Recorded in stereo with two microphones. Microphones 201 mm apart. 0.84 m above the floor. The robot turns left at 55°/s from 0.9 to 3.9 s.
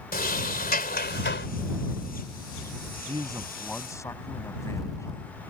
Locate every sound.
0.1 s a sliding door: 130° left; by 1.5 s 95° left
3.1 s a man speaking: 150° right; by 5.3 s 165° left